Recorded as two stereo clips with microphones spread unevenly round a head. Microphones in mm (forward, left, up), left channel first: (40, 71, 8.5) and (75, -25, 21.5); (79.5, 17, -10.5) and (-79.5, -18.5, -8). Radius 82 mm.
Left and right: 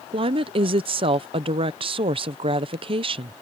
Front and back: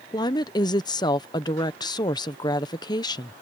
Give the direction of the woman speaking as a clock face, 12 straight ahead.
2 o'clock.